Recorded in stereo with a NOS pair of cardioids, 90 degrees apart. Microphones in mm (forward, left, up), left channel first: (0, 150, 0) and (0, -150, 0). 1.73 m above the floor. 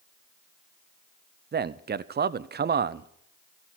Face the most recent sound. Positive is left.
turn(degrees=-35)